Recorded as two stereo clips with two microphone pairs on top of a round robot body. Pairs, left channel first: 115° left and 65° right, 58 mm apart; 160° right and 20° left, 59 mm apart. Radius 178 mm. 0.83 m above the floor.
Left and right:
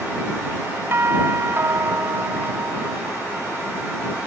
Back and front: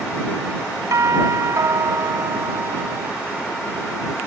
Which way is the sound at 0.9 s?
10° right.